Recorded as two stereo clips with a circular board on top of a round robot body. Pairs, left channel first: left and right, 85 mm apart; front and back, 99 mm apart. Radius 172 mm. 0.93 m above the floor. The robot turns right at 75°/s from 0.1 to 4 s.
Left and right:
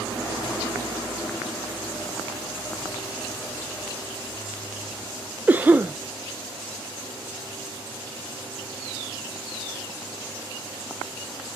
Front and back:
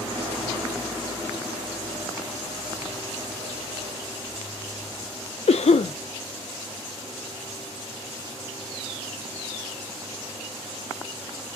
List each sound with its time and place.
5.5 s a cough: 15° right, 0.5 m